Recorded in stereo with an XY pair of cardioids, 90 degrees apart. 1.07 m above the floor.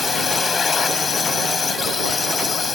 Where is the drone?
45° left.